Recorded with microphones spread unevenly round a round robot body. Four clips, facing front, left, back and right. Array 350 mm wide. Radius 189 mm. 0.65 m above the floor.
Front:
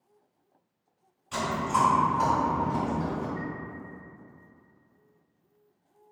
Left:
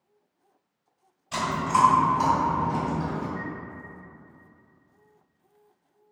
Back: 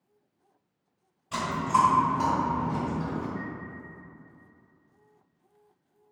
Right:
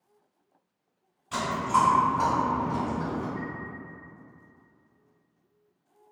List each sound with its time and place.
1.3 s chewing: 155° right, 1.5 m
3.4 s a chime: 170° right, 1.4 m